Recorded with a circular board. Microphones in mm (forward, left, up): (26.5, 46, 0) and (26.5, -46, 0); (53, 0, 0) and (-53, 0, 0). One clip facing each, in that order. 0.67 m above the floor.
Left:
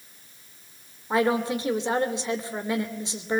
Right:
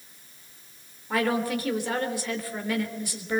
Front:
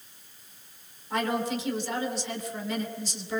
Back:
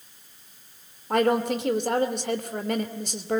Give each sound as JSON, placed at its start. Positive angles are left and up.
{"t": 1.1, "sound": "a woman speaking", "azimuth_deg": 155, "distance_m": 2.5}